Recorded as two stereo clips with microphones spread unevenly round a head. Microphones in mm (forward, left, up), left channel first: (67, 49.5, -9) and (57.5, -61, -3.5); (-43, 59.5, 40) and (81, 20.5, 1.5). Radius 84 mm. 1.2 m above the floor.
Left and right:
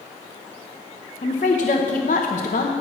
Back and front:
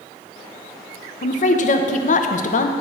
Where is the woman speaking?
130° left, 0.8 m.